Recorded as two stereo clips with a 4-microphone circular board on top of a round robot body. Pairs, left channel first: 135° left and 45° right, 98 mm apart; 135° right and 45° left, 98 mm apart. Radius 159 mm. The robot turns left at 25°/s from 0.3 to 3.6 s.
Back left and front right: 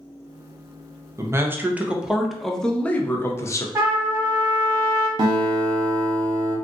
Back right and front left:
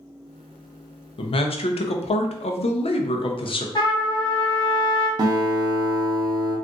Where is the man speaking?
105° right, 0.6 m; by 3.6 s 165° right, 0.6 m.